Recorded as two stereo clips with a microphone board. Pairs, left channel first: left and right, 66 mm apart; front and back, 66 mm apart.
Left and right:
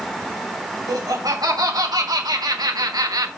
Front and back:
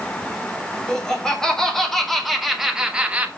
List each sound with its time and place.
0.9 s laughter: 75° right, 4 m; by 3.3 s 110° right, 1.4 m